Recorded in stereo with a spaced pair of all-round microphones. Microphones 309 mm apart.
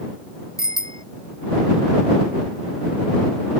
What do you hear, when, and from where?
0.6 s a bicycle bell: 10° left (ahead or behind)